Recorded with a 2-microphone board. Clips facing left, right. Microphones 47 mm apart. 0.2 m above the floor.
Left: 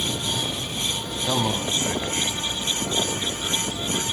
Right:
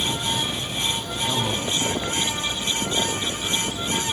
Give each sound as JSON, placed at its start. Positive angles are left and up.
{"t": 1.3, "sound": "a man speaking", "side_deg": 30, "distance_m": 1.4}